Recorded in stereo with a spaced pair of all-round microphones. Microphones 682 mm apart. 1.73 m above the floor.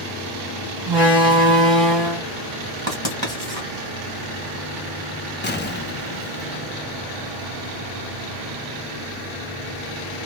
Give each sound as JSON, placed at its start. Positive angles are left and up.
{"t": 0.9, "sound": "a door slam", "side_deg": -35, "distance_m": 1.2}
{"t": 2.9, "sound": "writing", "side_deg": 5, "distance_m": 1.9}
{"t": 5.4, "sound": "an explosion", "side_deg": 15, "distance_m": 0.5}